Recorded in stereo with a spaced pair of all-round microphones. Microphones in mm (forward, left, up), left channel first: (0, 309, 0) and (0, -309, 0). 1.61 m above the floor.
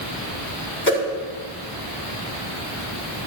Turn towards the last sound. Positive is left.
turn(degrees=20)  # may be behind; listen again after turning